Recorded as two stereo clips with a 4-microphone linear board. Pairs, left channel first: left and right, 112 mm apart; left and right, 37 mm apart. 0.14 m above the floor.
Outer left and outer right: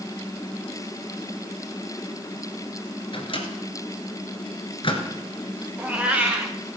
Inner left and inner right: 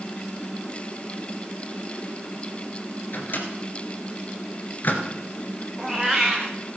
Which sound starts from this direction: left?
A microwave, at 3.1 s.